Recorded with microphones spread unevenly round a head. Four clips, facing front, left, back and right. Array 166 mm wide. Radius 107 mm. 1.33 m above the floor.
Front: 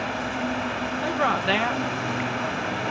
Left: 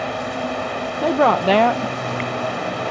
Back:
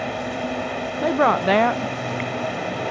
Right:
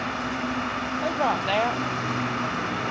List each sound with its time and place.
0.0 s running water: 155° left
1.0 s a woman speaking: 105° left